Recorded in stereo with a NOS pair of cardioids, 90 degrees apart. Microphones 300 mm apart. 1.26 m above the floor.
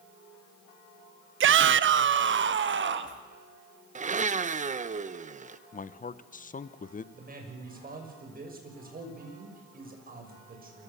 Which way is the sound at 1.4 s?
45° right.